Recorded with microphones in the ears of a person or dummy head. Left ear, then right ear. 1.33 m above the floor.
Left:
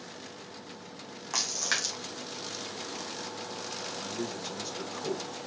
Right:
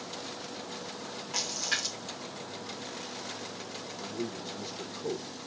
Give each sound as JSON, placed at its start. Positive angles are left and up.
{"t": 1.3, "sound": "a splash", "side_deg": 55, "distance_m": 2.0}
{"t": 4.0, "sound": "a man speaking", "side_deg": 70, "distance_m": 1.4}